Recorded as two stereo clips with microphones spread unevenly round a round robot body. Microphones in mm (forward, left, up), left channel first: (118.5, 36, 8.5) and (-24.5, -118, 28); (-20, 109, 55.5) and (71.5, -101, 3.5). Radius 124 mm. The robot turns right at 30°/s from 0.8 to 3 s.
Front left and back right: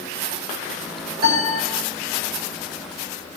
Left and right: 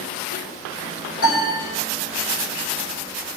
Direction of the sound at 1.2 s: 170° left.